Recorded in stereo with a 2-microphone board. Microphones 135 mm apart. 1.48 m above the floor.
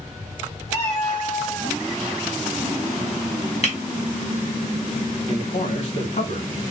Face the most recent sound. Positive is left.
turn(degrees=60)  # may be behind; listen again after turning